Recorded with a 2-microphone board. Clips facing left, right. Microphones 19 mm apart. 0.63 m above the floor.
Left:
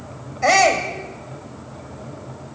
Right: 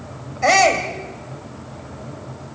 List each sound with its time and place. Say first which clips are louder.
0.4 s a shout: right 1 dB; centre (ahead or behind), 2.5 m